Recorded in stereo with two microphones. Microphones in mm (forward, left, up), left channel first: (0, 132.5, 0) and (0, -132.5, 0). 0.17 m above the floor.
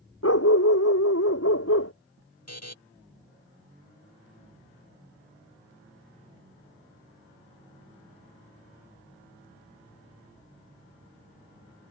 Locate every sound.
0.2 s a dog barking: 60° left (ahead or behind)
2.5 s a buzzer: 70° left (ahead or behind)